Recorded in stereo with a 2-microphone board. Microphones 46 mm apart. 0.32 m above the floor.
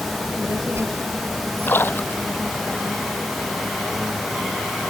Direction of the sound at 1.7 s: 50° left (ahead or behind).